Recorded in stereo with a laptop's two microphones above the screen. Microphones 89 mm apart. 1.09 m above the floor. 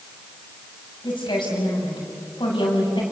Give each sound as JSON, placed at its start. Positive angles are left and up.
{"t": 1.0, "sound": "a woman speaking", "side_deg": 60, "distance_m": 7.5}